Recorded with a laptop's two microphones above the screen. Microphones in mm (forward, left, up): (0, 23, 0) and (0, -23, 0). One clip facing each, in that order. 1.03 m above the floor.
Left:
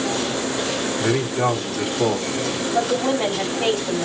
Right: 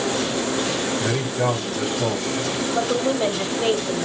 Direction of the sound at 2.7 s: 55° left (ahead or behind).